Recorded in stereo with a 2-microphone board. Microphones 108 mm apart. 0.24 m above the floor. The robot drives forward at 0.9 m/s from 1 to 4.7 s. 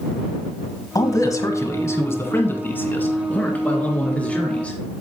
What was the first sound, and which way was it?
A man speaking, 35° left (ahead or behind).